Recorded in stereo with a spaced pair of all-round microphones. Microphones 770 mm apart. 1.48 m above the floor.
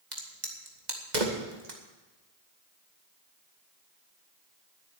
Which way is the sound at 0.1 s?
60° right (ahead or behind).